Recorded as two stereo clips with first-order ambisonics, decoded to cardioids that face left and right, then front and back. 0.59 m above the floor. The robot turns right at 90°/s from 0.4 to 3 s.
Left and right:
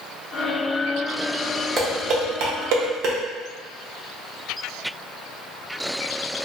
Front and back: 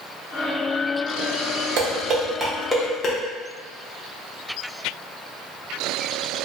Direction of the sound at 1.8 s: 165° right.